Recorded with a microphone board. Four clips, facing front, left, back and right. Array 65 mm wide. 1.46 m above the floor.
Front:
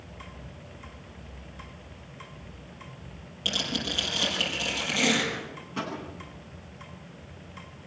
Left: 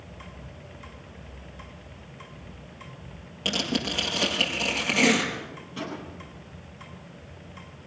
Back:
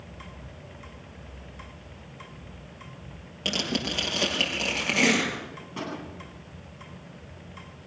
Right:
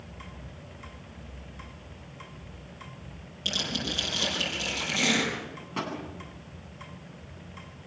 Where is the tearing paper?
135° left, 7 m.